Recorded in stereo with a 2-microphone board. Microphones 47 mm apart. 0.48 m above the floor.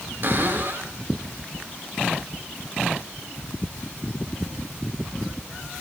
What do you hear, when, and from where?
0.2 s a cupboard door: 50° right (ahead or behind), 4.5 m